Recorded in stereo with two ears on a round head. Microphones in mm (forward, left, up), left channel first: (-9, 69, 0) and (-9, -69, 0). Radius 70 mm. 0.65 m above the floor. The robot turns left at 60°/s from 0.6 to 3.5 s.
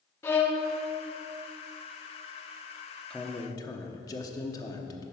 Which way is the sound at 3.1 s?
5° left (ahead or behind).